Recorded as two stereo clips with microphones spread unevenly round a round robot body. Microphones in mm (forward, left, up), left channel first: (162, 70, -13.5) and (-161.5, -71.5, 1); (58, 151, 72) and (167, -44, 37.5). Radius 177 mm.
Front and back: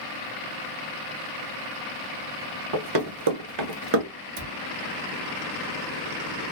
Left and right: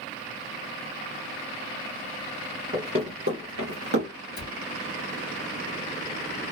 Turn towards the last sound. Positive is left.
turn(degrees=165)